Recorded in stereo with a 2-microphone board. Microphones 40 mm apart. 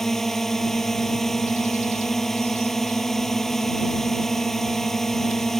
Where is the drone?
5° left (ahead or behind).